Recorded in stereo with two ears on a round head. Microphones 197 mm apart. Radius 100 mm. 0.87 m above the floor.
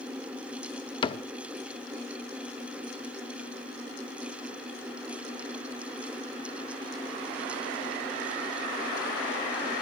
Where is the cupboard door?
20° left (ahead or behind), 0.6 m.